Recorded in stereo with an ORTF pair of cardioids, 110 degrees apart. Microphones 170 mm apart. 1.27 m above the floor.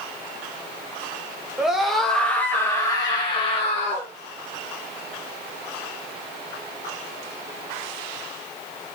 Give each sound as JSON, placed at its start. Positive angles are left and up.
{"t": 1.6, "sound": "a scream", "azimuth_deg": -5, "distance_m": 2.5}